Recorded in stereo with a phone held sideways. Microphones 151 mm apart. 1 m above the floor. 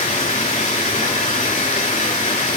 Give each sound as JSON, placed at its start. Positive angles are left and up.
{"t": 0.0, "sound": "running water", "side_deg": 50, "distance_m": 3.0}